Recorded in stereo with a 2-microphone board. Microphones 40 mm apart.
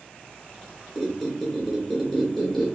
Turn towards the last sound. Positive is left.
turn(degrees=10)  # may be behind; listen again after turning